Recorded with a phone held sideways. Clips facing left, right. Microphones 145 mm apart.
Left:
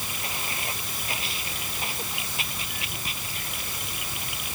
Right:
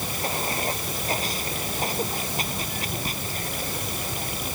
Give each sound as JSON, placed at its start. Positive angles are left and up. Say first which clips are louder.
{"t": 0.0, "sound": "running water", "louder": "right 7 dB", "side_deg": -40}